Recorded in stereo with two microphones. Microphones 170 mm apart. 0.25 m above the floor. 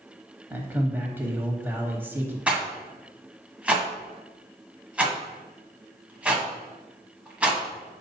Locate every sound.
0.5 s a man speaking: 10° right (ahead or behind), 1.1 m
2.5 s a rattle: 5° right (ahead or behind), 1.2 m